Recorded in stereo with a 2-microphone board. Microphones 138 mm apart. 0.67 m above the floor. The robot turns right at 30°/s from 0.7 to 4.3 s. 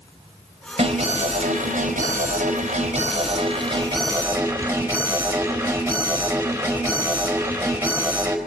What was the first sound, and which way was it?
An alarm, 120° right.